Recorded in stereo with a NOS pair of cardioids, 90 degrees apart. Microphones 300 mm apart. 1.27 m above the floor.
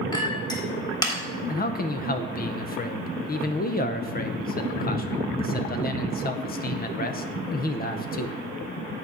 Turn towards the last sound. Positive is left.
turn(degrees=30)